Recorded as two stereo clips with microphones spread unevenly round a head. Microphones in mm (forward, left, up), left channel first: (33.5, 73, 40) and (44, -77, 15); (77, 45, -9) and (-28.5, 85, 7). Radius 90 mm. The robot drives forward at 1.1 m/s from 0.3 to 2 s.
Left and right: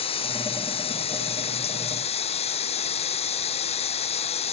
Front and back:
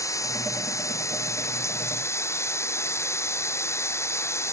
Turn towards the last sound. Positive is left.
turn(degrees=45)